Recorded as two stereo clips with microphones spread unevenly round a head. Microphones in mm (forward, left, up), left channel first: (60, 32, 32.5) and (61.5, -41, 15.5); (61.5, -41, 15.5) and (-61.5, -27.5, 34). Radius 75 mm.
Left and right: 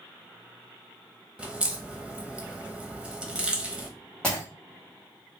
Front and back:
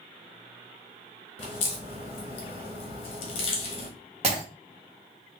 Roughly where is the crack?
Ahead.